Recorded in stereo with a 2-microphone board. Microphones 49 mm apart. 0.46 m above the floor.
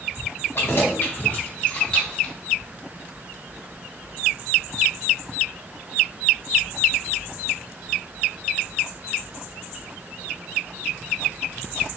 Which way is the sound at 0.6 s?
55° left (ahead or behind).